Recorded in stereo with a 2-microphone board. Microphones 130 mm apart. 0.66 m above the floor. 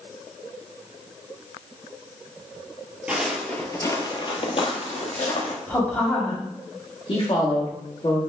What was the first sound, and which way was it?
Footsteps, 10° right (ahead or behind).